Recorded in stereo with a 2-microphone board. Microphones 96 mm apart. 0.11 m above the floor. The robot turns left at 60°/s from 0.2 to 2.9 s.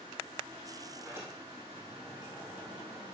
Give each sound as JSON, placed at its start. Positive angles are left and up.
{"t": 0.9, "sound": "a sliding door", "azimuth_deg": -145, "distance_m": 3.0}